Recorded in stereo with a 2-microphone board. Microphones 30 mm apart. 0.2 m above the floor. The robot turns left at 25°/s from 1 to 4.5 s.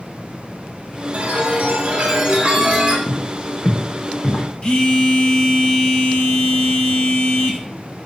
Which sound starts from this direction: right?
A chime, at 1.1 s.